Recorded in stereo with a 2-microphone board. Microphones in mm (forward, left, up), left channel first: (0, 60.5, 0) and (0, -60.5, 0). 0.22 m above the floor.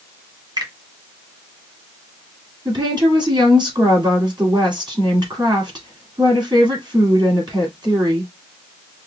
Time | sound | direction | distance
0.6 | a finger snap | 40° right (ahead or behind) | 1.4 m
2.6 | a woman speaking | 40° right (ahead or behind) | 2 m